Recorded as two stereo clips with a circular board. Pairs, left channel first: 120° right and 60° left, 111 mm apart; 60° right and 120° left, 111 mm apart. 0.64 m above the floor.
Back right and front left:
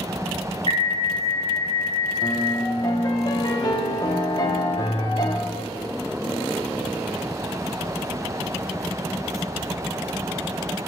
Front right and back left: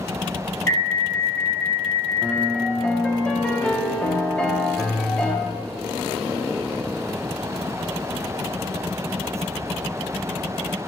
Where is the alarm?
125° right, 2.5 m.